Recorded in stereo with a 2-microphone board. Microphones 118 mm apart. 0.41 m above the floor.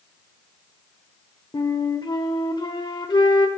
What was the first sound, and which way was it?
A flute, 40° left (ahead or behind).